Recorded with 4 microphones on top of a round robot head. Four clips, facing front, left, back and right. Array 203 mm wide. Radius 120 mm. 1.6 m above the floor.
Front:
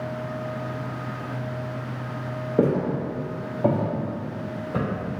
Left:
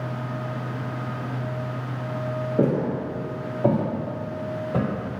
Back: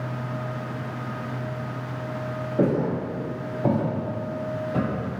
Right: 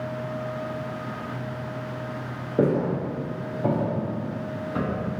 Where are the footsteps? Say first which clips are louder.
Right 1 dB, front 1 dB; 10° right, 1.8 m; by 4.9 s 70° left, 1.9 m.